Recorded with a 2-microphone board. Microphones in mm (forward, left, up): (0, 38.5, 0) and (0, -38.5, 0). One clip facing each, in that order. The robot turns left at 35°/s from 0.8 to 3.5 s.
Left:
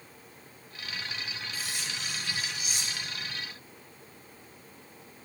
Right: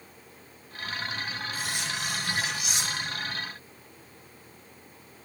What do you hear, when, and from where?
1.5 s cutlery clinking: 60° right, 1.8 m; by 3.2 s 120° right, 1.8 m